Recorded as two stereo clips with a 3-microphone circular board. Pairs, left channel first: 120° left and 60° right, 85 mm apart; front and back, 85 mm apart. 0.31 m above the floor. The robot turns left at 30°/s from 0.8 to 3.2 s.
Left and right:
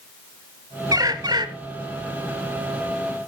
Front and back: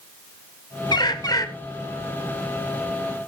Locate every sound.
0.9 s a bird: 20° right, 1.0 m; by 1.5 s 40° right, 1.0 m